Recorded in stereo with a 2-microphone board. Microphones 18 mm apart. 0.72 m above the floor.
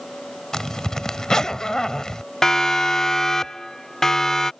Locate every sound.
0.5 s a zipper: 35° left (ahead or behind)
2.4 s a siren: 30° left (ahead or behind); by 4.5 s 25° left (ahead or behind)